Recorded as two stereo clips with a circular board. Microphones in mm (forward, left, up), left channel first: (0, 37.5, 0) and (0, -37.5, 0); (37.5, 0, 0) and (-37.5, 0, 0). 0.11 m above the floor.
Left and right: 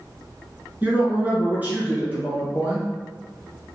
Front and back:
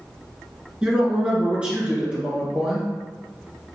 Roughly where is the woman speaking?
Behind right.